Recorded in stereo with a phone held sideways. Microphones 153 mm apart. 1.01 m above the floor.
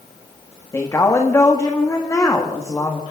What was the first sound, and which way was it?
A woman speaking, 20° left (ahead or behind).